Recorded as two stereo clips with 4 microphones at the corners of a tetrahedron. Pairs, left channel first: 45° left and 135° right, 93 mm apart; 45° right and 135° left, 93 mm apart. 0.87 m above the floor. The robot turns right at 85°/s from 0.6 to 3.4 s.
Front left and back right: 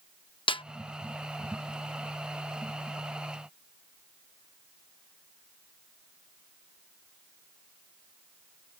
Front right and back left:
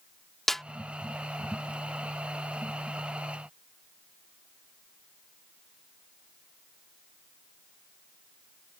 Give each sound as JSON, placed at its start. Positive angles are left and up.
{"t": 0.5, "sound": "a snare drum", "azimuth_deg": 40}